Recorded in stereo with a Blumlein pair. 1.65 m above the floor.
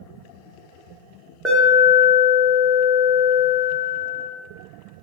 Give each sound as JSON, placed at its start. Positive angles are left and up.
{"t": 1.4, "sound": "an alarm", "azimuth_deg": -10, "distance_m": 0.9}